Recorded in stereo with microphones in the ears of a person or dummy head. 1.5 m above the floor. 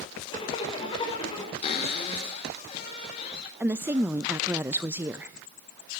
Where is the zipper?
30° left (ahead or behind), 5.5 m.